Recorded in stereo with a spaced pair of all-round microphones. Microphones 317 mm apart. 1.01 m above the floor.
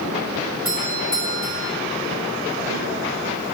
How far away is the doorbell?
About 7.5 m.